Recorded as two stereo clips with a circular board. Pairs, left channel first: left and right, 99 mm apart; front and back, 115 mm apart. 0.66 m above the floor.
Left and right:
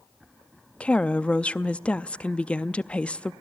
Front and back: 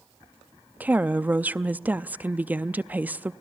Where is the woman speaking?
140° left, 0.5 m.